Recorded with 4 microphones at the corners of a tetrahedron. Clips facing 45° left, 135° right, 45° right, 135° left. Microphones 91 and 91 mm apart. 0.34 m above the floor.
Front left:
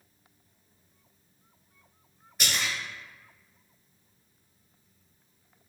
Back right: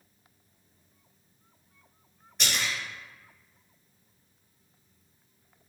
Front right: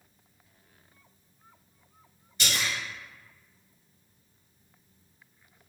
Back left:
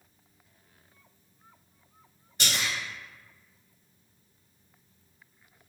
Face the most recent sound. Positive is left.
turn(degrees=135)